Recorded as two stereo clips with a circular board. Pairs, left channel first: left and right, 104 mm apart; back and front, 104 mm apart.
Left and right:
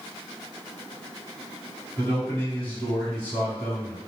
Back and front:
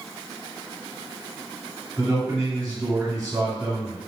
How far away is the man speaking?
About 1.9 m.